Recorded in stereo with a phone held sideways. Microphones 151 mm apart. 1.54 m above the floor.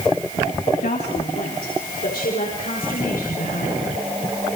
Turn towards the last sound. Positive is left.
turn(degrees=85)